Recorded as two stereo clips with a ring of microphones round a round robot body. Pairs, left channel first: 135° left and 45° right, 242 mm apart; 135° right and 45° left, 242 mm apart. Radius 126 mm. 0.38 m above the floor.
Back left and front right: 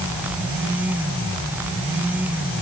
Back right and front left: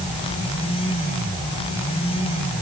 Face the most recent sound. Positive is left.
No sound to turn to.